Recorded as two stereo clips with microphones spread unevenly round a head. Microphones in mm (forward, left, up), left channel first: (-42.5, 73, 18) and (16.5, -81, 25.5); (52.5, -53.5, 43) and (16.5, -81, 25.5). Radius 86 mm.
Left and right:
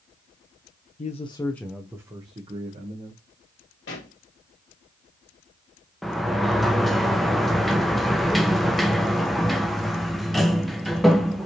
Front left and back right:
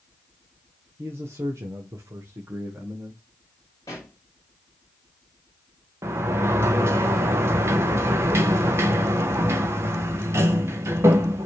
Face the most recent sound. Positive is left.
turn(degrees=-155)